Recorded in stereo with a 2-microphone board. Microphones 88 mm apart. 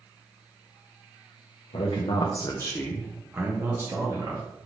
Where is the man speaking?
75° left (ahead or behind), 0.7 m; by 4.4 s 35° right (ahead or behind), 1.3 m.